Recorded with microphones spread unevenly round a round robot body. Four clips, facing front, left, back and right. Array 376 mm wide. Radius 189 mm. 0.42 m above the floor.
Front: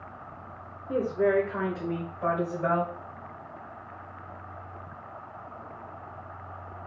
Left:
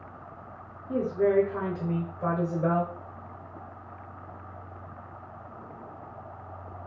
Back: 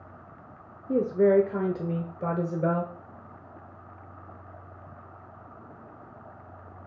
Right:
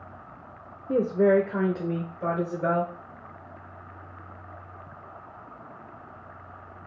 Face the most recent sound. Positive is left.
turn(degrees=170)